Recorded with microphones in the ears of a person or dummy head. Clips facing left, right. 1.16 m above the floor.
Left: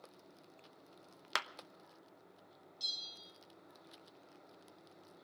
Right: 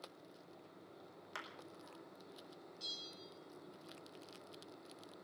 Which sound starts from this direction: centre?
A bell, at 2.8 s.